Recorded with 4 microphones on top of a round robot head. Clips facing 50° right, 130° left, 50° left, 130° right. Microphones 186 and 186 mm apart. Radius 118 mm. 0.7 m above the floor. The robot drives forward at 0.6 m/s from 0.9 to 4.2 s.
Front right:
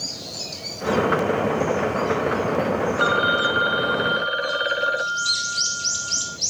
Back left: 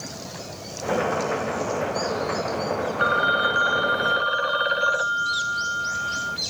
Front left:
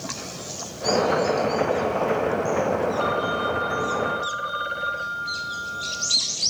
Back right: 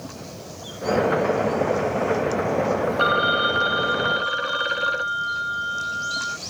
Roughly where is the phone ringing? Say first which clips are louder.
Front right 3 dB, back right 1 dB; right.